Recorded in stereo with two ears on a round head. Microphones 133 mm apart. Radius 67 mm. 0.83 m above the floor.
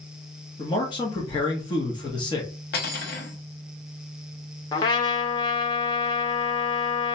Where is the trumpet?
30° left (ahead or behind), 0.5 m.